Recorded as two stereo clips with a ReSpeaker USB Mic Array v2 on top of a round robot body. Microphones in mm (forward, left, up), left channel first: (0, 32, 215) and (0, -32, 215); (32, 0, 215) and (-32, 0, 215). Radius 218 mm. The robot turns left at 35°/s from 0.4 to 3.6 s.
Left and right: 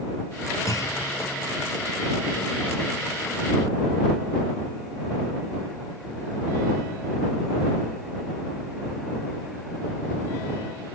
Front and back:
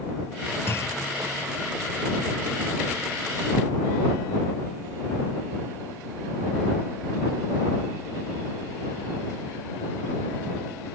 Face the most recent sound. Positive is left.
turn(degrees=-50)